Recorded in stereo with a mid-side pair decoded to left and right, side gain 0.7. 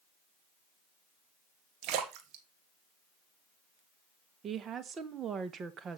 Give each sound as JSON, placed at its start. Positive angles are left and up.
{"t": 1.8, "sound": "a splash", "azimuth_deg": -60, "distance_m": 1.8}
{"t": 4.4, "sound": "a woman speaking", "azimuth_deg": -35, "distance_m": 1.5}